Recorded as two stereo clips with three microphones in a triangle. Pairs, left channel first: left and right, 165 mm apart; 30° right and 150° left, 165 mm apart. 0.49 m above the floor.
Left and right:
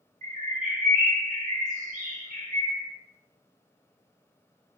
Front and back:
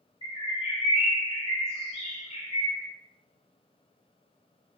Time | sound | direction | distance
0.2 | a bird | 75° right | 0.8 m